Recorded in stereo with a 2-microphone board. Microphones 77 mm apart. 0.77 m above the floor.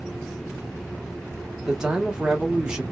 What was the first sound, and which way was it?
A man speaking, 10° right (ahead or behind).